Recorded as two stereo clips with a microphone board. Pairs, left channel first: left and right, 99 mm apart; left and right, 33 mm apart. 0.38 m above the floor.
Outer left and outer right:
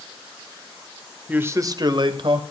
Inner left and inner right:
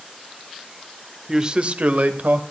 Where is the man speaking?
15° right (ahead or behind), 1.2 m; by 2.4 s 60° right (ahead or behind), 2.5 m.